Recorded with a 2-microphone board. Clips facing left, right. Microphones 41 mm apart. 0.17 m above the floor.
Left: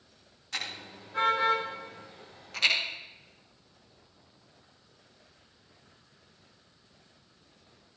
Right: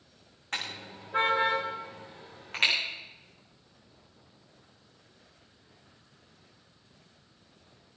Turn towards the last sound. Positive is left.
turn(degrees=-35)  # may be behind; listen again after turning